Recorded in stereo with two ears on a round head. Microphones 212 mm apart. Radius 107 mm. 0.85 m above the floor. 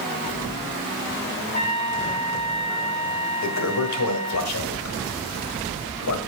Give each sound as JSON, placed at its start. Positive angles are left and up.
{"t": 1.5, "sound": "a trumpet", "side_deg": 30, "distance_m": 4.0}
{"t": 3.4, "sound": "a toilet flushing", "side_deg": 75, "distance_m": 1.6}